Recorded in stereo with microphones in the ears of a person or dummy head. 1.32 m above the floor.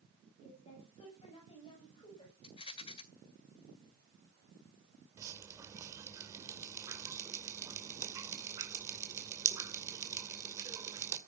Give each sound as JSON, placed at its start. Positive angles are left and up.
{"t": 0.4, "sound": "a woman speaking", "side_deg": 35, "distance_m": 8.0}
{"t": 2.4, "sound": "a rattle", "side_deg": 25, "distance_m": 1.8}
{"t": 5.2, "sound": "dripping", "side_deg": -15, "distance_m": 2.5}